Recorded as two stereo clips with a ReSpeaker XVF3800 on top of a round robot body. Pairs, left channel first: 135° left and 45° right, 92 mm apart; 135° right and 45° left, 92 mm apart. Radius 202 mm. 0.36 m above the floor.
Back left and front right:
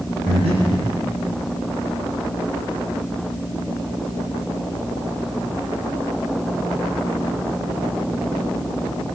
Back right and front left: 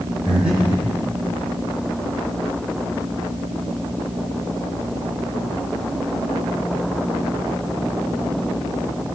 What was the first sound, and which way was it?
Breathing, 35° right.